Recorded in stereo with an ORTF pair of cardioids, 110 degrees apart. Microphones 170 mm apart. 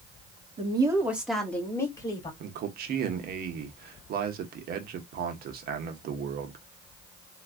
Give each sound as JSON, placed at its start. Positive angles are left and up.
{"t": 0.6, "sound": "a woman speaking", "azimuth_deg": -35, "distance_m": 1.5}
{"t": 2.4, "sound": "a man speaking", "azimuth_deg": -65, "distance_m": 1.2}